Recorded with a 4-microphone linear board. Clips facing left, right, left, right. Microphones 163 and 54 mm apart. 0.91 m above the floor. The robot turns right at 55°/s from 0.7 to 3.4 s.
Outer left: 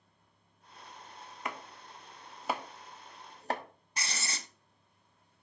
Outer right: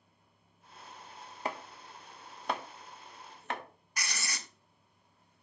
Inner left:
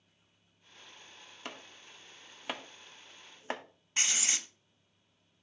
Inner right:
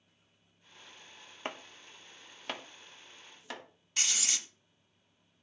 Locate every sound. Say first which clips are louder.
1.4 s chopping: outer right 3 dB, inner right 5 dB; 35° right (ahead or behind), 0.8 m; by 3.6 s 35° left (ahead or behind), 0.8 m
4.0 s writing: outer left 1 dB, inner left 2 dB; 25° left (ahead or behind), 0.8 m